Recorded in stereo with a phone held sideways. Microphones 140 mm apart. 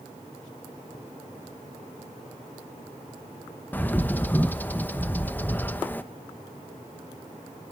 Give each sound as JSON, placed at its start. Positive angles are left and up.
{"t": 3.7, "sound": "a bird", "side_deg": 15, "distance_m": 0.9}